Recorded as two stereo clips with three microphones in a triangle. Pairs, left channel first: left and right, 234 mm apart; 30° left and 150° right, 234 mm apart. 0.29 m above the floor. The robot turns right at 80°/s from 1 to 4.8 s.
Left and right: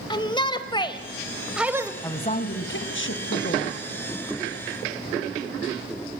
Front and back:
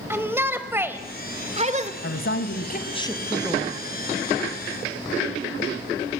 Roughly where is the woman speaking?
Ahead.